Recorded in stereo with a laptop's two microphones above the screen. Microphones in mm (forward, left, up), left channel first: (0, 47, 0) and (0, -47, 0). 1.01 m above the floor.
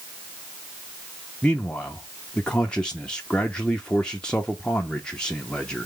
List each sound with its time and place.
1.4 s a man speaking: 10° left (ahead or behind), 0.6 m